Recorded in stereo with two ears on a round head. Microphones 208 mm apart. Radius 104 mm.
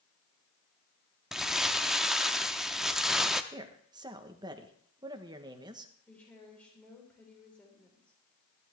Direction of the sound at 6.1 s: 5° left (ahead or behind).